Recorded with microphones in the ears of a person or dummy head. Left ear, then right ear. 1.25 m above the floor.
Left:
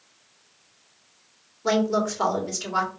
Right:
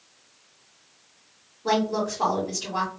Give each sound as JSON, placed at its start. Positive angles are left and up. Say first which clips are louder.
{"t": 1.6, "sound": "a woman speaking", "louder": "left 1 dB", "side_deg": 65, "distance_m": 1.9}